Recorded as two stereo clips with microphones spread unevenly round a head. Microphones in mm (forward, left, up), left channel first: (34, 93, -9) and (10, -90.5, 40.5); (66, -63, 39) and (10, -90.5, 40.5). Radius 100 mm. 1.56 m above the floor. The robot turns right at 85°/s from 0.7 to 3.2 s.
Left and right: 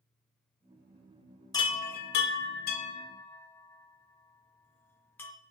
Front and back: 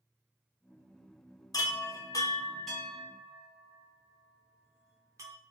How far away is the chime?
About 0.7 m.